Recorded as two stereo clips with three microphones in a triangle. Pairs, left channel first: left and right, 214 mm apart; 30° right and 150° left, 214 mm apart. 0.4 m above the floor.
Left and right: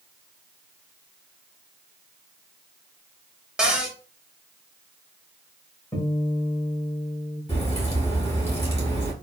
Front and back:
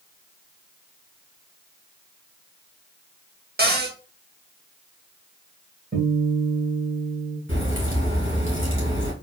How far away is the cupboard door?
About 0.7 m.